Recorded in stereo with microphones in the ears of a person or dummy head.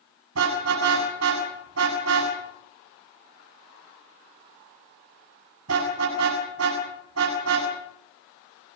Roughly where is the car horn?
Right.